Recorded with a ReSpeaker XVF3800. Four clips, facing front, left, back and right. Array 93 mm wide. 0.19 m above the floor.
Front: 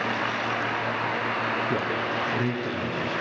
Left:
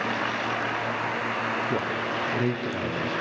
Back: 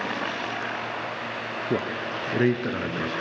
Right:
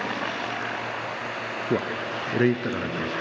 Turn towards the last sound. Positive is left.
turn(degrees=-140)